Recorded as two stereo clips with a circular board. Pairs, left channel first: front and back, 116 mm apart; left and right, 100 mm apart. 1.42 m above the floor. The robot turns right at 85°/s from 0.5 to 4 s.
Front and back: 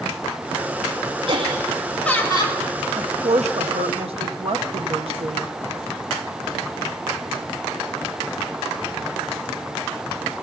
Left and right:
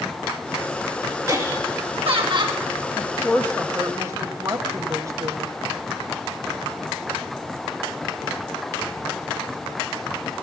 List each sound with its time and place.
1.3 s laughter: 145° right, 2.5 m; by 2.6 s 30° right, 2.5 m
3.0 s a woman speaking: 125° left, 1.1 m; by 5.5 s 145° right, 1.1 m